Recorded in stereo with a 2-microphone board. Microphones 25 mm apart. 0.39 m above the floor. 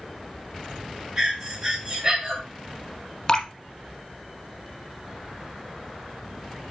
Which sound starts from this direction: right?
Breathing, at 1.2 s.